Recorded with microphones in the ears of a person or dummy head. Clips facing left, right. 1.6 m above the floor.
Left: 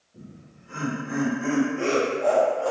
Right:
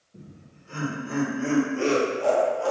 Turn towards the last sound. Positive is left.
turn(degrees=-75)  # may be behind; listen again after turning